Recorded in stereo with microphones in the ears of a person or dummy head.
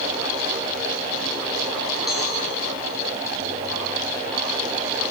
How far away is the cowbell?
About 5.5 m.